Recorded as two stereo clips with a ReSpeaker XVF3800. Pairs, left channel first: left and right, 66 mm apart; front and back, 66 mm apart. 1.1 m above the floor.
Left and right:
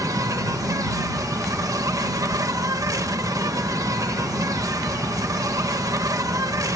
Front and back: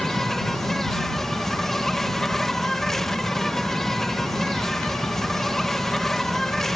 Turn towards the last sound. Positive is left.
turn(degrees=-85)